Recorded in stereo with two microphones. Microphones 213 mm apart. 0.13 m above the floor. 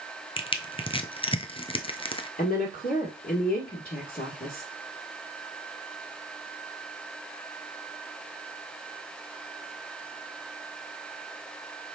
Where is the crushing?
25° left (ahead or behind), 0.6 m.